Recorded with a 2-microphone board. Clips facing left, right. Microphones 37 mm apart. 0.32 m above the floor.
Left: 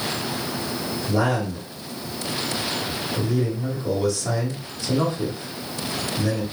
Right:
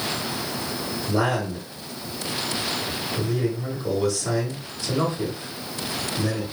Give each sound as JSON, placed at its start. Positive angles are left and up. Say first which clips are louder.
{"t": 1.1, "sound": "a man speaking", "louder": "left 1 dB", "side_deg": 5, "distance_m": 1.0}